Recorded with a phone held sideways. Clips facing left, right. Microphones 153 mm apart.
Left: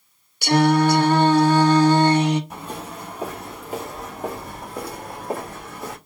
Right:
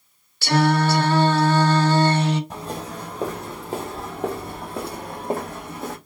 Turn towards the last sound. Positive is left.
turn(degrees=-25)  # may be behind; listen again after turning